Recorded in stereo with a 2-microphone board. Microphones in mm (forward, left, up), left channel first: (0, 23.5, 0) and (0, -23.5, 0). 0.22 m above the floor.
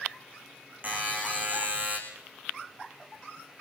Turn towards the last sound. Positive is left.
turn(degrees=-40)  # may be behind; listen again after turning